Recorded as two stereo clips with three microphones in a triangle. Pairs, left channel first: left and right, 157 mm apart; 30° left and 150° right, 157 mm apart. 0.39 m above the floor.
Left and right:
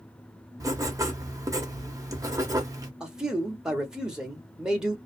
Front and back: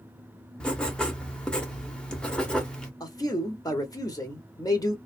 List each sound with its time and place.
0.6 s writing: 50° right, 0.8 m
3.0 s a man speaking: 10° right, 1.0 m